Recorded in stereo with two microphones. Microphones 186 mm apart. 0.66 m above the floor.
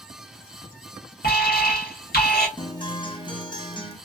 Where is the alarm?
60° left (ahead or behind), 1.2 m.